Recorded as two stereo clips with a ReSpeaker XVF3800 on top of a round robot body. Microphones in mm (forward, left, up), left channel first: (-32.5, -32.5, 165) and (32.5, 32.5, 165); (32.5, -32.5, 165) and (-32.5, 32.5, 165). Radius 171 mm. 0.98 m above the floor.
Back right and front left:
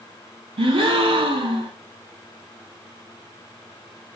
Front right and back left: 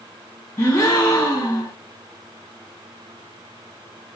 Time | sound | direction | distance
0.6 | a gasp | 15° left | 1.1 m